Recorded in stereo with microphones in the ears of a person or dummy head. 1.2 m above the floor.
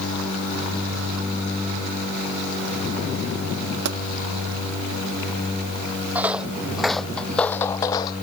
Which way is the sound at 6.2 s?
5° right (ahead or behind).